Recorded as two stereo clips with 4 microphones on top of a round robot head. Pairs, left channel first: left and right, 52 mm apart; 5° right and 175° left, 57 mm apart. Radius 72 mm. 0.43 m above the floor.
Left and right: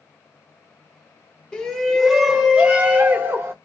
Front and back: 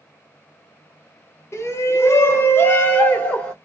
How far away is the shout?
About 1.4 m.